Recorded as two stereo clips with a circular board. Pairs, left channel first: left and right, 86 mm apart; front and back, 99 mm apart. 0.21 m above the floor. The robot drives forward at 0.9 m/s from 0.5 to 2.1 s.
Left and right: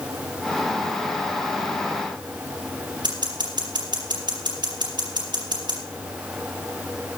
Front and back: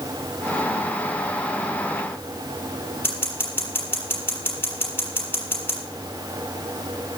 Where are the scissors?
65° right, 6 m.